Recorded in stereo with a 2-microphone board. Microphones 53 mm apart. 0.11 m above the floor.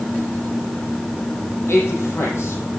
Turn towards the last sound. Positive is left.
turn(degrees=55)  # may be behind; listen again after turning